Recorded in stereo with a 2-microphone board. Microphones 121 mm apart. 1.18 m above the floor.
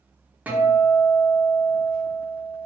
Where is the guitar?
10° right (ahead or behind), 0.8 m.